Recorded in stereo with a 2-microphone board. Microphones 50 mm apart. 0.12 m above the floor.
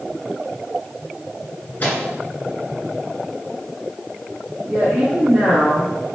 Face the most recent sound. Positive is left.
turn(degrees=-40)  # may be behind; listen again after turning